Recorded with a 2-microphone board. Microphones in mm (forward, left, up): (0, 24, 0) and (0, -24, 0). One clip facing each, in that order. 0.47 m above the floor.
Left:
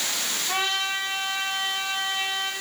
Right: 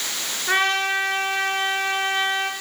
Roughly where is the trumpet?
Right.